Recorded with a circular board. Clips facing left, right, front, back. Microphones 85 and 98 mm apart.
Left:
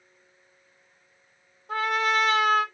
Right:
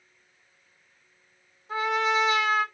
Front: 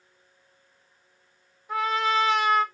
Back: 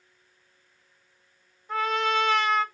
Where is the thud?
No thud in this recording.